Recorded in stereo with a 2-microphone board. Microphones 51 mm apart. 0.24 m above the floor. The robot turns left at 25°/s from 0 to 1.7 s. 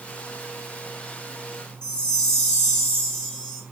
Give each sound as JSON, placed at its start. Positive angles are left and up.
{"t": 1.8, "sound": "a chime", "side_deg": 15, "distance_m": 1.0}